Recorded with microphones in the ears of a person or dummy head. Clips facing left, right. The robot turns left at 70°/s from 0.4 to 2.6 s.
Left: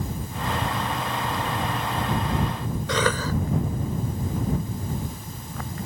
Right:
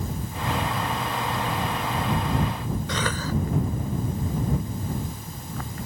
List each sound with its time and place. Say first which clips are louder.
2.9 s a cough: left 7 dB; 65° left (ahead or behind)